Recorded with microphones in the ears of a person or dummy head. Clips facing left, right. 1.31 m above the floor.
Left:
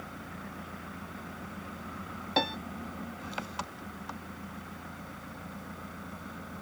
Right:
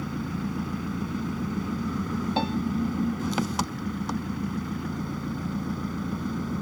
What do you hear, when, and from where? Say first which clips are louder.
0.0 s an engine running: right 13 dB; 70° right (ahead or behind)
2.4 s a piano: right 1 dB; 15° left (ahead or behind)